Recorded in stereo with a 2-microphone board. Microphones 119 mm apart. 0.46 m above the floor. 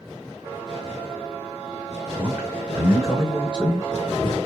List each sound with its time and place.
2.2 s a man speaking: 20° right (ahead or behind), 1.6 m; by 4.4 s 20° left (ahead or behind), 1.8 m